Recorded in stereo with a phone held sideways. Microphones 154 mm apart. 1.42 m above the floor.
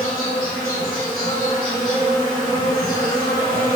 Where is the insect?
60° left (ahead or behind), 1.7 m.